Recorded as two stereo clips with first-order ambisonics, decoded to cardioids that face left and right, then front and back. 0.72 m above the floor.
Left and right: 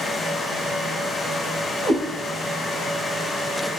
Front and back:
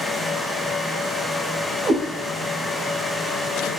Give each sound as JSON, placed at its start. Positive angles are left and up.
{"t": 1.8, "sound": "a cat meowing", "azimuth_deg": -95, "distance_m": 1.7}